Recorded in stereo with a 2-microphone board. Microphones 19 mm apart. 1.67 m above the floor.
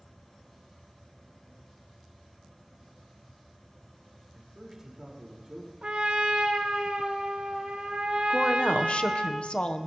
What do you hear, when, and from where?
4.3 s a man speaking: 15° right (ahead or behind), 5 m
5.8 s a trumpet: 50° right (ahead or behind), 1.8 m
8.3 s a woman speaking: 55° left (ahead or behind), 1.1 m